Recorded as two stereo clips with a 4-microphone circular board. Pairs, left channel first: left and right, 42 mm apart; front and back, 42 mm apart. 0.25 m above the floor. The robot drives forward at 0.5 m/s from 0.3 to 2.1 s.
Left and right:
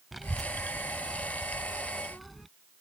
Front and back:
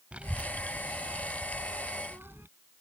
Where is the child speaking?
175° right; by 2.5 s straight behind.